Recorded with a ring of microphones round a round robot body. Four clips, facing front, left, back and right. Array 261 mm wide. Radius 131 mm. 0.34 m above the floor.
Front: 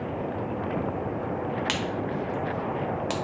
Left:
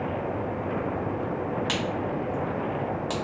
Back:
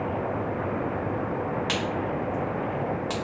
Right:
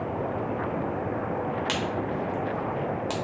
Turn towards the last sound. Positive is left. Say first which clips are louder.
# even, back 1 dB
turn(degrees=-20)